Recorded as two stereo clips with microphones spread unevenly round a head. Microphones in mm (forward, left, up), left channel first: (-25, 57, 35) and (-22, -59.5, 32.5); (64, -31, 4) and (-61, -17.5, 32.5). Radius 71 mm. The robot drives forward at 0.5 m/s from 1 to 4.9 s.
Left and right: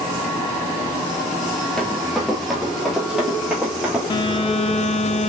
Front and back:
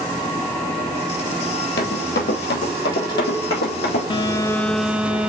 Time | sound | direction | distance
1.8 | running footsteps | 5° left | 2.5 m
4.1 | a phone buzzing | 40° left | 0.6 m